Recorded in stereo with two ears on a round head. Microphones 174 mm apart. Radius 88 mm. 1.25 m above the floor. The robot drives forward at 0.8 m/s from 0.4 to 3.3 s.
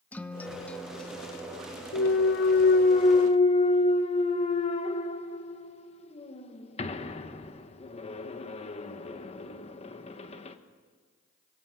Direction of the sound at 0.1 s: 10° left (ahead or behind).